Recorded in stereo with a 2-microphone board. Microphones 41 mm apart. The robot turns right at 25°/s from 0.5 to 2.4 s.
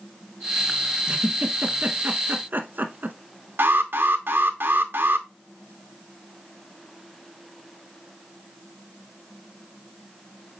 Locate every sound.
1.1 s a giggle: 20° right (ahead or behind), 1.1 m; by 3.2 s 50° right (ahead or behind), 1.1 m
3.6 s an alarm: 65° right (ahead or behind), 1.0 m